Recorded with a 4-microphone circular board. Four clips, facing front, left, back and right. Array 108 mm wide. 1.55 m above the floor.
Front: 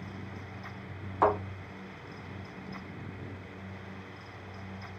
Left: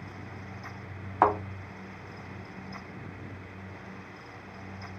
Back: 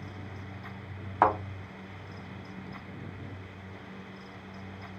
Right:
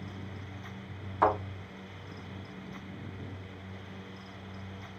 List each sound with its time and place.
1.2 s a thud: 140° left, 1.4 m